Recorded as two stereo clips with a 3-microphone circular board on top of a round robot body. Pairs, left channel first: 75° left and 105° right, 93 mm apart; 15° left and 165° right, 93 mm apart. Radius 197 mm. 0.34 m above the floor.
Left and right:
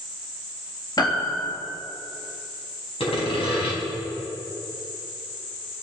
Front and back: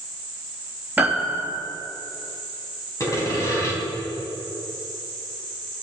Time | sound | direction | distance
1.0 | a piano | 125° left | 3.5 m
3.0 | sawing | 70° left | 5 m